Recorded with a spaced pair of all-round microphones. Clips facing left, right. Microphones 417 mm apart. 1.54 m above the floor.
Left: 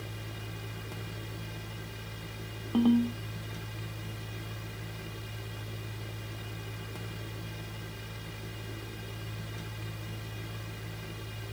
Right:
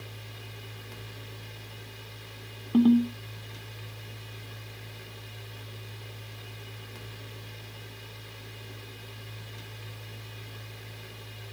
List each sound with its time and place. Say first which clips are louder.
0.0 s a fan: left 4 dB; 65° left (ahead or behind), 1.2 m
2.7 s a ringtone: right 4 dB; 35° right (ahead or behind), 1.3 m